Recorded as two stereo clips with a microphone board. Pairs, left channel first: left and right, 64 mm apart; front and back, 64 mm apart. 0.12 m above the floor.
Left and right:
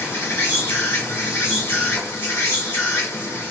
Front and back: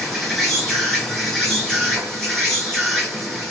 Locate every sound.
0.0 s an insect: 80° left, 1.7 m